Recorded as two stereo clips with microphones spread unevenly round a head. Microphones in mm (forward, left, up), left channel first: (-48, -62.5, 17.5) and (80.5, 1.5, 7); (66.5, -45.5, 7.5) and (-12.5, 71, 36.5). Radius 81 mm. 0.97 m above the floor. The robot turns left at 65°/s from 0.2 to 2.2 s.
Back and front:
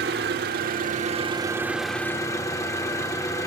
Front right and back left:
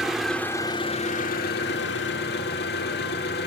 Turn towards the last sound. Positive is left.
turn(degrees=-90)